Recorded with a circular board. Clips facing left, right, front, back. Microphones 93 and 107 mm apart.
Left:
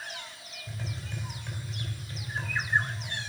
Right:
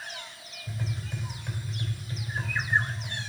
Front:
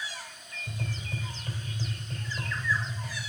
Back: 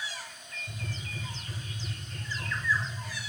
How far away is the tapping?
About 3 m.